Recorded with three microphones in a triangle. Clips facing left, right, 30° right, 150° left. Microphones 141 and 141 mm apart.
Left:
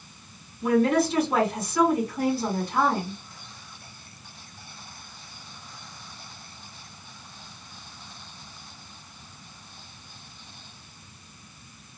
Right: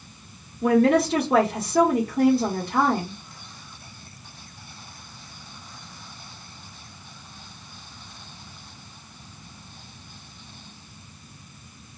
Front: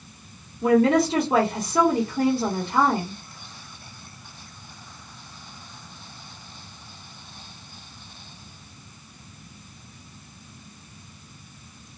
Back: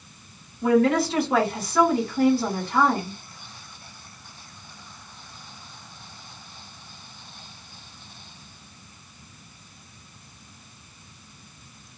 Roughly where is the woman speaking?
Right.